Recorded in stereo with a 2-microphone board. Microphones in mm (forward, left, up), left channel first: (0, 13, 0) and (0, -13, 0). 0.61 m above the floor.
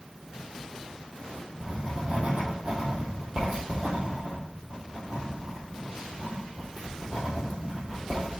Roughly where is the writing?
Right.